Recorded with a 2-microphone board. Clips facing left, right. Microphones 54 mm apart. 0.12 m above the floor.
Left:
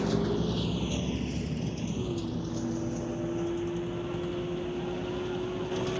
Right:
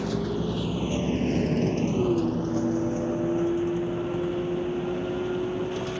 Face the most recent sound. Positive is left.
turn(degrees=-20)  # may be behind; listen again after turning